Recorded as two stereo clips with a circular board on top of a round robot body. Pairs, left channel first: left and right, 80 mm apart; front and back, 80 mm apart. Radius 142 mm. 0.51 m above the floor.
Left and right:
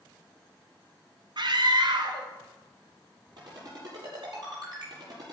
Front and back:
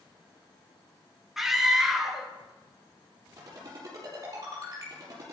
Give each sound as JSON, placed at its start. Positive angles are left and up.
{"t": 1.4, "sound": "a scream", "azimuth_deg": -95, "distance_m": 1.8}
{"t": 3.4, "sound": "a ringtone", "azimuth_deg": -130, "distance_m": 7.0}